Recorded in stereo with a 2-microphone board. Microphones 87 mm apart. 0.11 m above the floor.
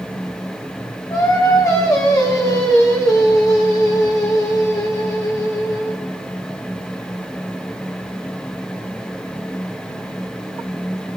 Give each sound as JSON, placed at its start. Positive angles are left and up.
{"t": 1.1, "sound": "singing", "side_deg": 45, "distance_m": 3.5}